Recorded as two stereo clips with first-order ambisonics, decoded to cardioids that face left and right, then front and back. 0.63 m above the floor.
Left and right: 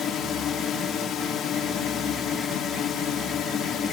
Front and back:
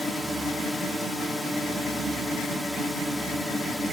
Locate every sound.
0.0 s a drone: 75° left